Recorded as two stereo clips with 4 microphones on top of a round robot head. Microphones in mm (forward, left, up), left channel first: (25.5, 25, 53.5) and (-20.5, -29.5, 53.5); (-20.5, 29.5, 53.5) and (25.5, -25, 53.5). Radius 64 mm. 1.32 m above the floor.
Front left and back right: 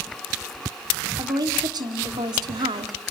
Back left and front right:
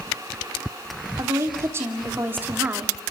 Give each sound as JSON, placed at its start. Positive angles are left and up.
{"t": 1.2, "sound": "a woman speaking", "azimuth_deg": -100, "distance_m": 3.0}